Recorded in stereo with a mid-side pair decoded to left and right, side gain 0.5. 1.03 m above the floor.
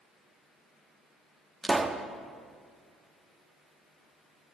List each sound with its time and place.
1.6 s a pop: 25° right, 1.0 m